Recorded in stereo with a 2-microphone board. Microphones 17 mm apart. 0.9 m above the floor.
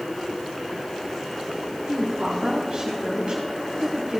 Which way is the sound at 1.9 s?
50° right (ahead or behind).